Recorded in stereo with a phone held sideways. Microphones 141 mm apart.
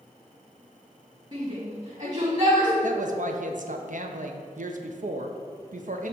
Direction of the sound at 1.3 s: 45° right (ahead or behind).